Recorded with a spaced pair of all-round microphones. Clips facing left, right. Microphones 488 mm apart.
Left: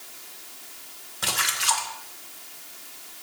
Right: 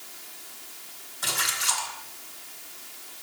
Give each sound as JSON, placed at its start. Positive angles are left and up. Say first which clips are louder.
{"t": 1.2, "sound": "a splash", "louder": "left 3 dB", "side_deg": 80, "distance_m": 2.0}